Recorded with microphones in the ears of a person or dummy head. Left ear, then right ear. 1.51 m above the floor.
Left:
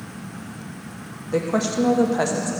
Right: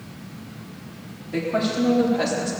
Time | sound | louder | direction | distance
1.3 | a woman speaking | left 2 dB | 80° left | 1.2 m